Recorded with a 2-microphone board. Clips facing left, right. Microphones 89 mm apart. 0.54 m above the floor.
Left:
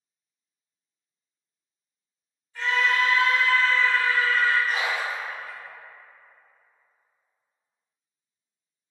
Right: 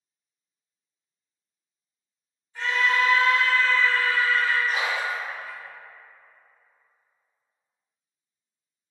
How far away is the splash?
About 1.5 m.